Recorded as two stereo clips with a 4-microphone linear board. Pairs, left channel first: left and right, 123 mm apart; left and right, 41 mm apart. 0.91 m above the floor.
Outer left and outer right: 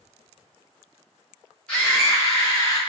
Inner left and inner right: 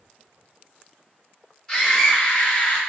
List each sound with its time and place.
1.7 s a scream: 10° left (ahead or behind), 0.8 m; by 2.8 s 40° left (ahead or behind), 1.2 m